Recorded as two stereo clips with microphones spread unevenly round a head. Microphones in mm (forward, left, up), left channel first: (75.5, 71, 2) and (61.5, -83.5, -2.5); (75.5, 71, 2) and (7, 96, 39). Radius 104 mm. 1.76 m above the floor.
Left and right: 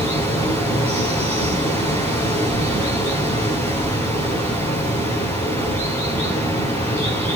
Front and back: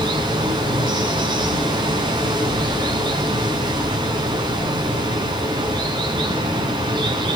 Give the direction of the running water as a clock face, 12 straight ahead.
6 o'clock.